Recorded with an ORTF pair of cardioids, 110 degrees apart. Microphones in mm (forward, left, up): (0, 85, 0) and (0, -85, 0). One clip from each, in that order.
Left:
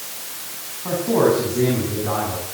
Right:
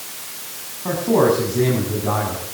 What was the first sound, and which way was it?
A man speaking, 20° right.